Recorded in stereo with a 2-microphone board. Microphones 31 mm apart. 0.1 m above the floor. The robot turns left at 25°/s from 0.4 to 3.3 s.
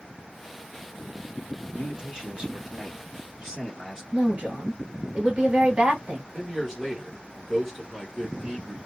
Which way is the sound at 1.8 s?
25° right (ahead or behind).